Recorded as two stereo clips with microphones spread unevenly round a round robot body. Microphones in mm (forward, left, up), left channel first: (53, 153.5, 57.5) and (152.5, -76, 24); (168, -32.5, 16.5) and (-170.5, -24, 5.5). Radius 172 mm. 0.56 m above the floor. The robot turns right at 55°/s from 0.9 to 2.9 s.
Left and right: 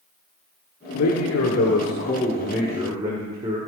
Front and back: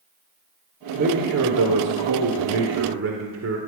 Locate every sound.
0.9 s a man speaking: 115° left, 1.8 m; by 3.6 s 140° right, 1.8 m